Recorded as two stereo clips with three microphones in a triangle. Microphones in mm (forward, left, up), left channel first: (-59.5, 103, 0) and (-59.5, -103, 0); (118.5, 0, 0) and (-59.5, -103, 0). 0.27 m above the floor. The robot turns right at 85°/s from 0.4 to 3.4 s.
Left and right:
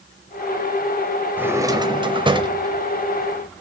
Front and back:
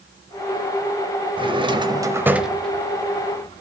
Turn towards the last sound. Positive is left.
turn(degrees=15)